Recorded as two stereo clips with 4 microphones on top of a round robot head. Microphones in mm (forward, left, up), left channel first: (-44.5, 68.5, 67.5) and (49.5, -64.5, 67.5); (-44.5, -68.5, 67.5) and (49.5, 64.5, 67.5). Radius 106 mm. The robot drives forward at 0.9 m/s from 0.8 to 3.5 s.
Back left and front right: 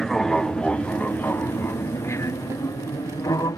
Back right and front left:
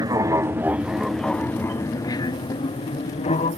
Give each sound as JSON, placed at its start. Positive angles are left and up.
{"t": 0.0, "sound": "an aircraft", "azimuth_deg": 40}